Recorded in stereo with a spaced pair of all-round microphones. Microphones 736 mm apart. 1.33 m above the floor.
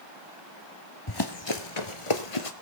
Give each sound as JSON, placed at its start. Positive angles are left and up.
{"t": 1.1, "sound": "running footsteps", "side_deg": 30, "distance_m": 1.6}